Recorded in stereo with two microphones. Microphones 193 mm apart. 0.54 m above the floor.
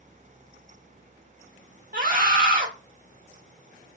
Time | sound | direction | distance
1.9 | a scream | 45° right (ahead or behind) | 1.9 m